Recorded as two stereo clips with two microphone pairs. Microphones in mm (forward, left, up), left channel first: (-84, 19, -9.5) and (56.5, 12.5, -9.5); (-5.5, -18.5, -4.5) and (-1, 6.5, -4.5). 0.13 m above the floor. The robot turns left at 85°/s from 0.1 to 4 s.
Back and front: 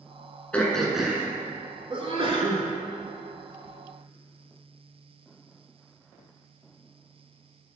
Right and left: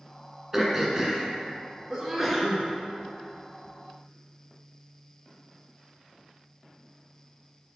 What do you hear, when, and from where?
0.5 s throat clearing: 120° left, 1.3 m; by 1.2 s 60° left, 1.3 m
1.9 s a sneeze: 25° left, 1.8 m; by 2.6 s 40° right, 1.8 m